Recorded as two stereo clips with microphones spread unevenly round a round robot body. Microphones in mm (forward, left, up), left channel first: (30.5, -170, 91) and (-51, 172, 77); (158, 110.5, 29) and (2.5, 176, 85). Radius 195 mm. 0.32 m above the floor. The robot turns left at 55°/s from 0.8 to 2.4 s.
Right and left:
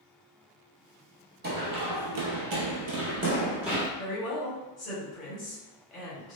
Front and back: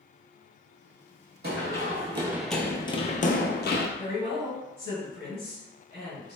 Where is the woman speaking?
30° right, 1.6 m.